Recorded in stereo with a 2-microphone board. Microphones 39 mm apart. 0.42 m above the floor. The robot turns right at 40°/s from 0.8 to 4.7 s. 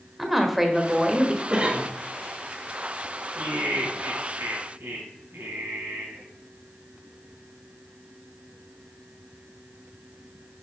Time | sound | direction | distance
0.2 | a woman speaking | 5° right (ahead or behind) | 1.3 m
1.5 | a cough | 25° right (ahead or behind) | 1.3 m
3.4 | laughter | 135° right | 3 m